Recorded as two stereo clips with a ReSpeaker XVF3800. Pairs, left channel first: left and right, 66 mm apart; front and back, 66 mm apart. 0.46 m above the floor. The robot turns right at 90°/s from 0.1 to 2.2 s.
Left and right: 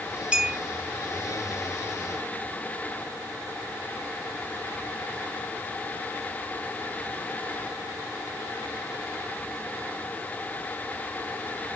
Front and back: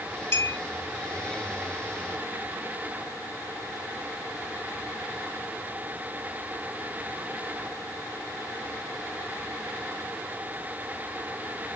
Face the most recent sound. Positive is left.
turn(degrees=145)